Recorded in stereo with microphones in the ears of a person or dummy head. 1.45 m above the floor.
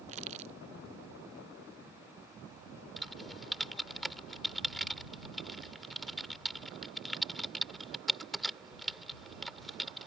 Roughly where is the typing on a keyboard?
Centre.